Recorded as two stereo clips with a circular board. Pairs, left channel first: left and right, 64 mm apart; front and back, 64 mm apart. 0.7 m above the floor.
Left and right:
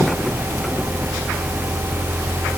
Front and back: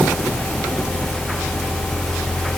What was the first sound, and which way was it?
Only background noise.